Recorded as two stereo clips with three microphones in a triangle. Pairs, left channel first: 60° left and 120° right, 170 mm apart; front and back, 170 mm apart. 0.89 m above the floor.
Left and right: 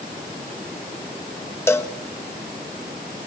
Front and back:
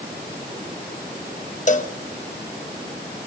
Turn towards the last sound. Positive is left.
turn(degrees=-10)